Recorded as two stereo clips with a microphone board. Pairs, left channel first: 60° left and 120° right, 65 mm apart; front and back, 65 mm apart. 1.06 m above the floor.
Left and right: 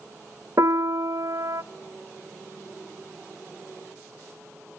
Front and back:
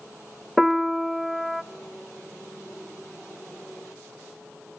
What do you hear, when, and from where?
0.6 s a piano: 95° right, 0.7 m